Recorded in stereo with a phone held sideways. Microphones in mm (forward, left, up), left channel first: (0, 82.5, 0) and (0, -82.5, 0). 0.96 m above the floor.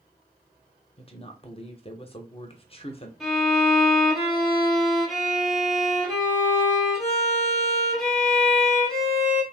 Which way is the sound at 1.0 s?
35° left (ahead or behind).